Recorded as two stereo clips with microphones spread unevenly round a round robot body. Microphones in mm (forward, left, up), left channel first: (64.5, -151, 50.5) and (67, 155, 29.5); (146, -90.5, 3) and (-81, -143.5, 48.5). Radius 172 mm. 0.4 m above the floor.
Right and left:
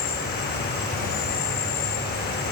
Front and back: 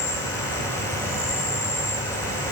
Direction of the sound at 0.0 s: 45° right.